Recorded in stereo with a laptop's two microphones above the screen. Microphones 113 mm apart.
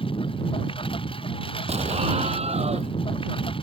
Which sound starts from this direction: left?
A lawn mower, at 0.0 s.